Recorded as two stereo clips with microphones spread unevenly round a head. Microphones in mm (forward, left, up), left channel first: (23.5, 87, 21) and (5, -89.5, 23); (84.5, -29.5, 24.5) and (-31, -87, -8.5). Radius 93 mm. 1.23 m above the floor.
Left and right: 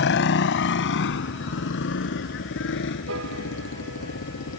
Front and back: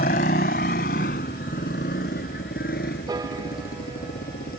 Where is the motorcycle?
60° left.